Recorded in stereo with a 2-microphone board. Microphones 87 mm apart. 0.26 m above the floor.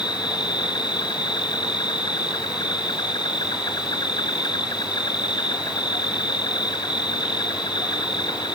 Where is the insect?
55° left (ahead or behind).